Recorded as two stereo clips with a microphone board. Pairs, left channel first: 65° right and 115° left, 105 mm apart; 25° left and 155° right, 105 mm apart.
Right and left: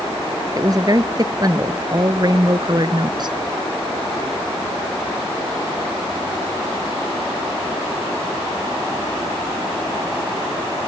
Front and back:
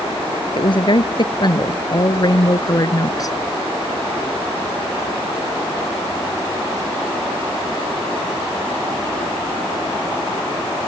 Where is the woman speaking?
60° left; by 3.4 s 75° left.